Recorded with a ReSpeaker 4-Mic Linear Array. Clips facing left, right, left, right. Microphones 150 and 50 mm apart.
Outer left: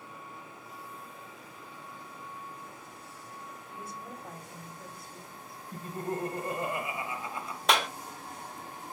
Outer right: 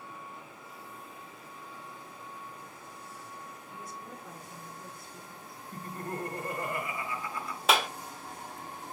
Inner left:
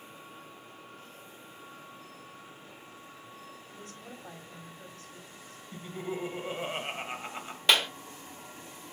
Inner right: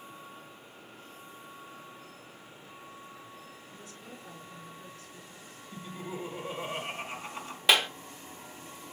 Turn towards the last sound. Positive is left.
turn(degrees=-5)  # may be behind; listen again after turning